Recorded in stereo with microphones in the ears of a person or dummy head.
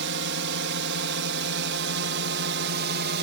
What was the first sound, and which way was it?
A drone, 65° right (ahead or behind).